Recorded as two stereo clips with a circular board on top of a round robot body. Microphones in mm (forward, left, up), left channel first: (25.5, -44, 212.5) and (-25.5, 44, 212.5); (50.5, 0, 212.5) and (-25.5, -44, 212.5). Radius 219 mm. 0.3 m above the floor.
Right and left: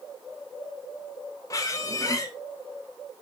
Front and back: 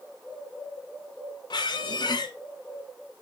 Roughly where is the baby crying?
I don't hear a baby crying.